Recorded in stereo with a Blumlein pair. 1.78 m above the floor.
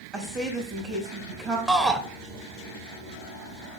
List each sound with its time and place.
0.1 s a woman speaking: 25° right, 0.9 m
1.7 s a shout: 10° right, 0.6 m